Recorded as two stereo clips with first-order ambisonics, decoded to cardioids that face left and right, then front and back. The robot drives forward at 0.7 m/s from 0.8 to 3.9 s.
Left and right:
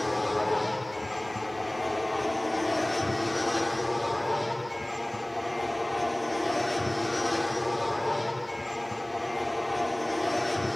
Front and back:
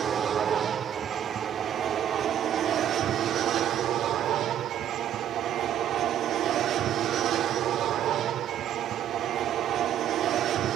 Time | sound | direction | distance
0.0 | an aircraft | 160° left | ?